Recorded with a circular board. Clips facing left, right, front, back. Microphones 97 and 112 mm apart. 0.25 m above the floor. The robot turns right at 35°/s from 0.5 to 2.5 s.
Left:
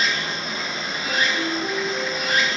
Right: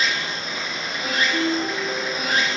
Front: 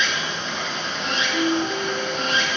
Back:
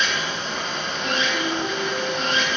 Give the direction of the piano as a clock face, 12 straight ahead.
4 o'clock.